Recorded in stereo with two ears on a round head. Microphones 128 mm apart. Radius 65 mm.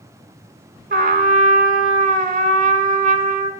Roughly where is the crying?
I don't hear crying.